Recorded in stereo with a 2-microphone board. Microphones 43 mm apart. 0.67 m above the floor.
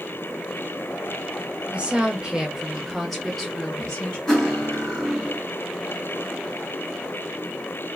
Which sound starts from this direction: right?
A woman speaking, at 1.7 s.